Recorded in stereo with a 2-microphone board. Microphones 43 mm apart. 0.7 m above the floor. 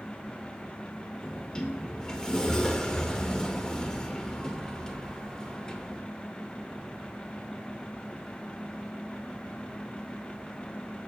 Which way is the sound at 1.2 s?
15° left (ahead or behind).